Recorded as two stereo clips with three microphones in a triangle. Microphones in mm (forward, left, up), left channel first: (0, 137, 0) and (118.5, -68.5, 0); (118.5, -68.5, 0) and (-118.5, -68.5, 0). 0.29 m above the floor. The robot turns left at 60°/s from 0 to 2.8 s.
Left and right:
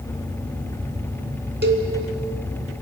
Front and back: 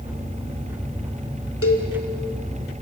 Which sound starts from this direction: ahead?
A cowbell, at 1.6 s.